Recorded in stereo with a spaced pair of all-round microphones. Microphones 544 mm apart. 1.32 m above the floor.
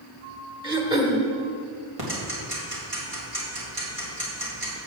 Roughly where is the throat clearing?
Centre.